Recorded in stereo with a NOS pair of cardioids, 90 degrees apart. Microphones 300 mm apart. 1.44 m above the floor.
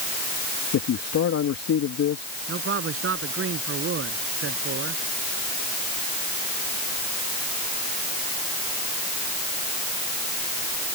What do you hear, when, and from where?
0.7 s a man speaking: 55° left
2.5 s a man speaking: 45° right